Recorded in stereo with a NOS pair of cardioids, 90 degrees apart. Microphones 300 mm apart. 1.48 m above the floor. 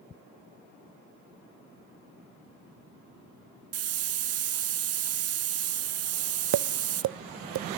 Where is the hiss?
55° right, 0.7 m.